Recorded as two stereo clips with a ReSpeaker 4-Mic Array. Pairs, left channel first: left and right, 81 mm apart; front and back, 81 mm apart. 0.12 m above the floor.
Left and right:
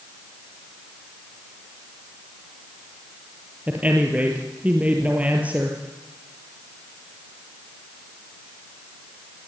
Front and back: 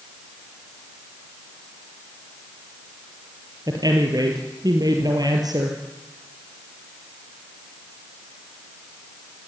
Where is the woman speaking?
160° right, 3 m.